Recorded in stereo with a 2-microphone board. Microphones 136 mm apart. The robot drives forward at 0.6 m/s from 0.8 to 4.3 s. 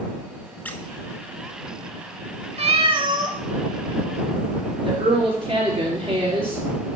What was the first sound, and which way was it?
A squeak, 10° left (ahead or behind).